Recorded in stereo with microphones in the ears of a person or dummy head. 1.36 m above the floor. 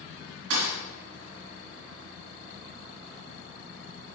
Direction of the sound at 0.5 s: 70° right (ahead or behind).